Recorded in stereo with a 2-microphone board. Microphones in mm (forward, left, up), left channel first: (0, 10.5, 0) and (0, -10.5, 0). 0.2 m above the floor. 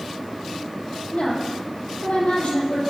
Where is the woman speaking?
70° left (ahead or behind), 5.5 m.